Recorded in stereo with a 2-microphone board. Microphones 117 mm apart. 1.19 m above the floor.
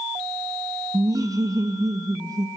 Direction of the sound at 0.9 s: 30° right (ahead or behind).